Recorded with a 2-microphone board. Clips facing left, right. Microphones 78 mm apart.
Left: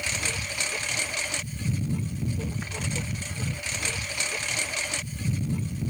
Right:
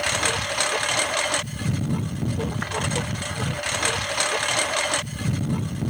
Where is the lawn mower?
70° right (ahead or behind).